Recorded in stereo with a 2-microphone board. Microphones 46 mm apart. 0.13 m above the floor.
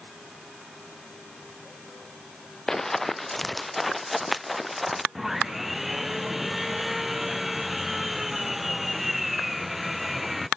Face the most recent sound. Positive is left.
turn(degrees=-5)  # may be behind; listen again after turning